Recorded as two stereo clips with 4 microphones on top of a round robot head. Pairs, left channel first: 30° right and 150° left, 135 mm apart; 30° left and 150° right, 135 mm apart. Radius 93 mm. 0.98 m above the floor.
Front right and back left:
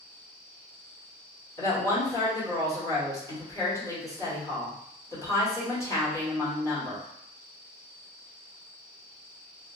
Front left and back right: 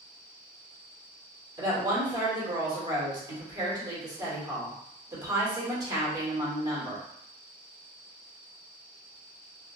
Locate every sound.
1.6 s a woman speaking: 90° right, 1.3 m